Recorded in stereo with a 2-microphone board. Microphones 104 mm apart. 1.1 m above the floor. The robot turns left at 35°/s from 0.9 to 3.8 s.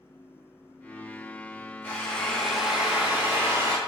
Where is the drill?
25° left, 0.9 m; by 3.8 s 45° right, 0.9 m.